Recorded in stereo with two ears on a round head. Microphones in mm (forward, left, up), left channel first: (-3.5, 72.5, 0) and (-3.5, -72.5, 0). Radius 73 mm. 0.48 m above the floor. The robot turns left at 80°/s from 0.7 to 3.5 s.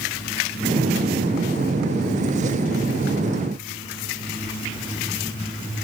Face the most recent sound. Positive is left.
No sound to turn to.